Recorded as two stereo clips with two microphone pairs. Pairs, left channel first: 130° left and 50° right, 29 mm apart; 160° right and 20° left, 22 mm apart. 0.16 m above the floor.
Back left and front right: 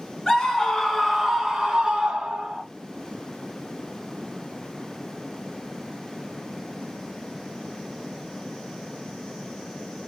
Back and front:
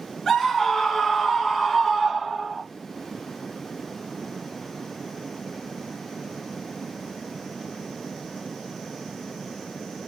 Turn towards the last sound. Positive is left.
turn(degrees=-65)